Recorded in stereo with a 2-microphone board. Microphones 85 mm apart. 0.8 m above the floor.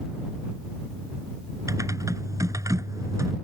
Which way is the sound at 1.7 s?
40° right (ahead or behind).